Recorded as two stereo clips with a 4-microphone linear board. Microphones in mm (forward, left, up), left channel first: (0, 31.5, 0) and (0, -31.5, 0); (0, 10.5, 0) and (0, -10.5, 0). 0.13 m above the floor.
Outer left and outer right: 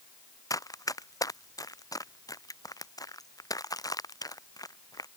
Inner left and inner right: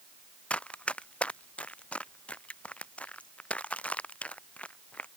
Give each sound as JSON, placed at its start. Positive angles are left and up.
{"t": 0.5, "sound": "running footsteps", "side_deg": 70}